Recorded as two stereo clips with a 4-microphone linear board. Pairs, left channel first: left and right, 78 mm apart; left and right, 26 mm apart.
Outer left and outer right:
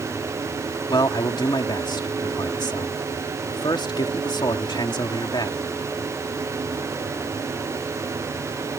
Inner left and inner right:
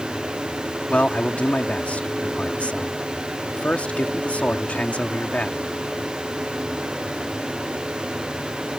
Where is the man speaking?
65° left (ahead or behind).